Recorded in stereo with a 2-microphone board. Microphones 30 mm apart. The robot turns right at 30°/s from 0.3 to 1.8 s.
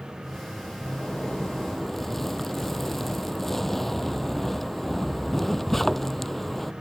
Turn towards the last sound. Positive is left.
turn(degrees=5)  # may be behind; listen again after turning